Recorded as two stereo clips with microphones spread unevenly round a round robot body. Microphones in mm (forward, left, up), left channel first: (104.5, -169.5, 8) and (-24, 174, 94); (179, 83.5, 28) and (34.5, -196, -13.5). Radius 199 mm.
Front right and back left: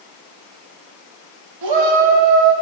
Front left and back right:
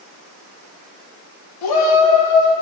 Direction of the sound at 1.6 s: 85° left.